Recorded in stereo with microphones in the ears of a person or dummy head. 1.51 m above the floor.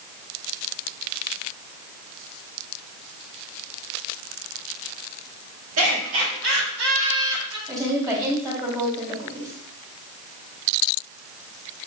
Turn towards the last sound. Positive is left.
turn(degrees=-15)  # may be behind; listen again after turning